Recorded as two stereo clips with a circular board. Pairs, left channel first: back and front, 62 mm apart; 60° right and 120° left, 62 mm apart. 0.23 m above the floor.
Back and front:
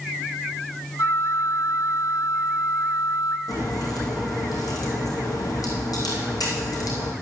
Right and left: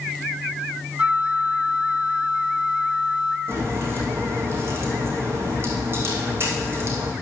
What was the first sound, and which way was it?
A flute, 175° right.